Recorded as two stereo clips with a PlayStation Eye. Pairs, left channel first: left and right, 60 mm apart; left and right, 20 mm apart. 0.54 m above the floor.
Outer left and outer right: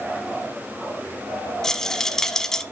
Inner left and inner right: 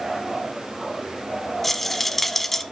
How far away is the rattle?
About 0.8 m.